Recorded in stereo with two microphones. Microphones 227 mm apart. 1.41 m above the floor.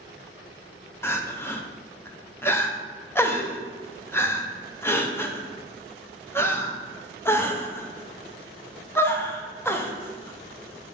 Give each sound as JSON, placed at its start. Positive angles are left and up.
{"t": 1.0, "sound": "crying", "side_deg": 10, "distance_m": 0.7}